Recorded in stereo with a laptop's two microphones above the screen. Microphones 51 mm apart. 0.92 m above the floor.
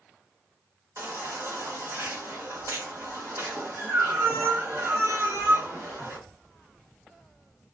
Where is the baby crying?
65° right (ahead or behind), 0.9 m.